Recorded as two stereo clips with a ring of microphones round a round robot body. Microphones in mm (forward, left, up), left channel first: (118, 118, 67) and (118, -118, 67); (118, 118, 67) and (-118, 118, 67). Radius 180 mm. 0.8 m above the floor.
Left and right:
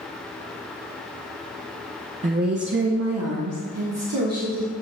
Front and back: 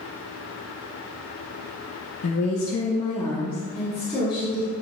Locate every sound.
2.2 s a woman speaking: 30° right, 0.8 m; by 4.7 s 95° right, 2 m